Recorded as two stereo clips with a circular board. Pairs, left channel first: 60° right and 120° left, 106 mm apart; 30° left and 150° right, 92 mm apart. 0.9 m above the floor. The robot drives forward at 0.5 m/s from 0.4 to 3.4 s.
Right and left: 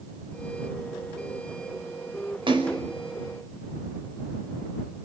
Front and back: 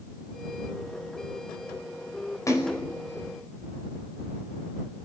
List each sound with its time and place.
2.5 s a splash: 85° left, 5 m